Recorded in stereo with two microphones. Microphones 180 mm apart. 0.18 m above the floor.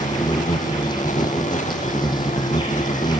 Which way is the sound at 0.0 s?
25° left (ahead or behind).